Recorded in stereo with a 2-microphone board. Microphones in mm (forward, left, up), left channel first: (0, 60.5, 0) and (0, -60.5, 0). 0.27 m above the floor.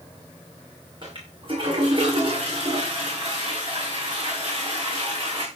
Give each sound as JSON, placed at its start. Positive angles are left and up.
{"t": 1.0, "sound": "a toilet flushing", "side_deg": -45, "distance_m": 6.5}